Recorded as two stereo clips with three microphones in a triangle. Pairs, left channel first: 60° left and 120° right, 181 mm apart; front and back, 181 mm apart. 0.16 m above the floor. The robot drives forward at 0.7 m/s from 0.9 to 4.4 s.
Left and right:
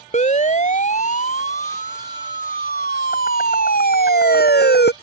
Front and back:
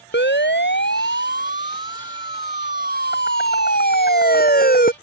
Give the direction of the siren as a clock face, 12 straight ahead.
12 o'clock.